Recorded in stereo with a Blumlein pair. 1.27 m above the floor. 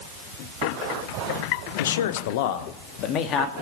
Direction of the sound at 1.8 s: 65° left.